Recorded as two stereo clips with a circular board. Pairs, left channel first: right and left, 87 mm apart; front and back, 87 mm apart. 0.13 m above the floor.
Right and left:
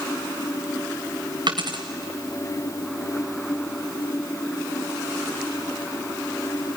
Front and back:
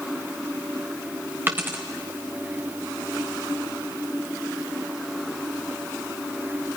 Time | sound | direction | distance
1.5 | a dropped coin | 115° left | 1.9 m